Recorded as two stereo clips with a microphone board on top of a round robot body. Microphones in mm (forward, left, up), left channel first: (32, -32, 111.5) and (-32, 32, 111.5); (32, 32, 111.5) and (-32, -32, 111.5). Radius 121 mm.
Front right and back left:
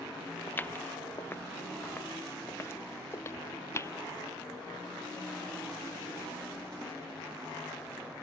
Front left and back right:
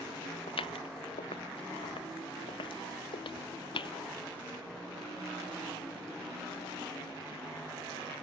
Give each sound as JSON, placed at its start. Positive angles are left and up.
{"t": 0.5, "sound": "footsteps", "azimuth_deg": 25}